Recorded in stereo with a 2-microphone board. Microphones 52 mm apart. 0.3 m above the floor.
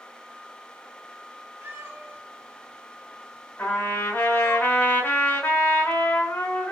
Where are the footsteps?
I don't hear footsteps.